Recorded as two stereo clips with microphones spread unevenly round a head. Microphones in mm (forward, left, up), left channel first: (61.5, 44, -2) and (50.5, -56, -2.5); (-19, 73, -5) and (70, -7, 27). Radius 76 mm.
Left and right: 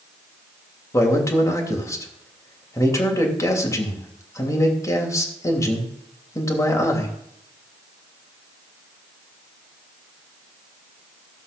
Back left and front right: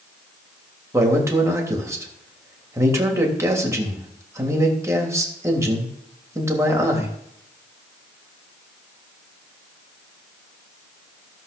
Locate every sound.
0.9 s a man speaking: 25° left, 3 m